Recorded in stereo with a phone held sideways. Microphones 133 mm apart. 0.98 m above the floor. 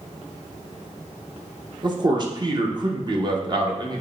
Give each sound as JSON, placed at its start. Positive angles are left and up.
{"t": 1.8, "sound": "a man speaking", "side_deg": -35, "distance_m": 0.7}